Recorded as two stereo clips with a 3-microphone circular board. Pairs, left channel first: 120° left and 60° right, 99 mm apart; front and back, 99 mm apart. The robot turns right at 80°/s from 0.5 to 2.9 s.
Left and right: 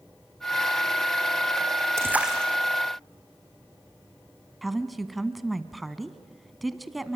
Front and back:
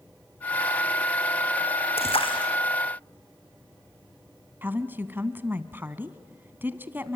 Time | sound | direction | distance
2.0 | a splash | straight ahead | 3 m
4.6 | a woman speaking | 150° right | 1.1 m